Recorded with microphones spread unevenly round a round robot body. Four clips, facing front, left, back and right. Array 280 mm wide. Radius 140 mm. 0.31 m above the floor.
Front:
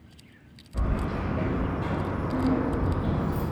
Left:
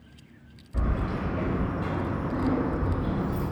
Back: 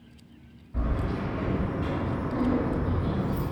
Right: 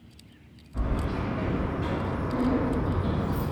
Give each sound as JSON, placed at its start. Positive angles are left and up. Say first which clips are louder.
{"t": 0.7, "sound": "keys jangling", "louder": "even, even", "azimuth_deg": 100, "distance_m": 0.9}